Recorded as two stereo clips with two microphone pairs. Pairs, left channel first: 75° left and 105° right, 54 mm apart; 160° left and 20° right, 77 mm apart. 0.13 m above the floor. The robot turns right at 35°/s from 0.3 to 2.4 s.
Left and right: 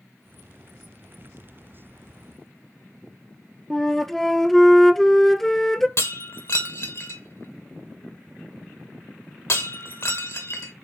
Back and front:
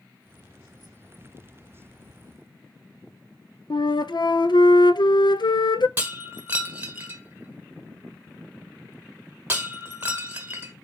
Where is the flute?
160° left, 0.5 m.